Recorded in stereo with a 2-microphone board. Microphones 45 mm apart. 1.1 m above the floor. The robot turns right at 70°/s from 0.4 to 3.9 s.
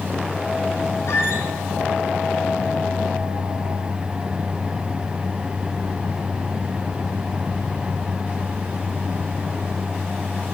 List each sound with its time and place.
1.1 s a squeak: 75° left (ahead or behind), 4.5 m; by 1.5 s 65° left (ahead or behind), 4.5 m